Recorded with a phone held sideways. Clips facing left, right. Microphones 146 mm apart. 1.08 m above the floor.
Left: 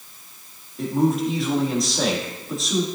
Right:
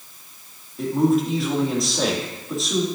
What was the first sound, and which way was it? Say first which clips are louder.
A man speaking: right 2 dB; centre (ahead or behind).